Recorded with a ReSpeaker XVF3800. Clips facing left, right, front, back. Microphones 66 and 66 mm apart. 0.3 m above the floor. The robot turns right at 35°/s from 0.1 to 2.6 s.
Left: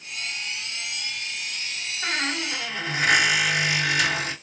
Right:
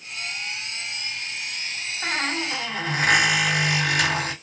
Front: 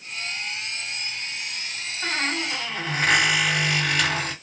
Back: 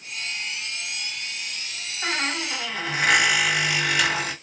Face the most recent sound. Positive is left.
turn(degrees=-100)